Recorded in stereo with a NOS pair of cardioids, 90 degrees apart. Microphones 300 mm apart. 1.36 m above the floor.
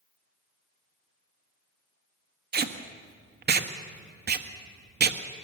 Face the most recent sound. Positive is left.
turn(degrees=-35)